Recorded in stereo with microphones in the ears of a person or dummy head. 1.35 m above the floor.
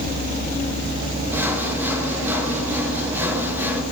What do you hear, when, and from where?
1.3 s sawing: 5° right (ahead or behind), 2 m